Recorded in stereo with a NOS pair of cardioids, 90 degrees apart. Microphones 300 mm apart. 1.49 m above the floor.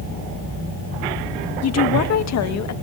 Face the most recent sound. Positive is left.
turn(degrees=65)